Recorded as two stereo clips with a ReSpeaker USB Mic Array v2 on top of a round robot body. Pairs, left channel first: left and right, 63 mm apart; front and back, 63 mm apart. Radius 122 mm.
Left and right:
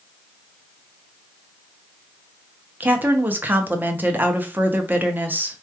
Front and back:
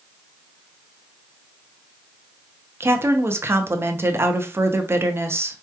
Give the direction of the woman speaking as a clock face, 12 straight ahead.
5 o'clock.